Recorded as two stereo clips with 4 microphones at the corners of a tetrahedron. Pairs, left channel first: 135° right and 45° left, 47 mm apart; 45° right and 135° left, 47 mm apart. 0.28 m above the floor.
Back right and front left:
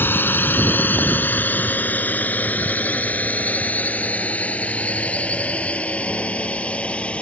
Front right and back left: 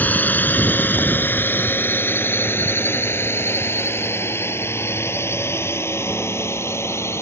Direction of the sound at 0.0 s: 95° right.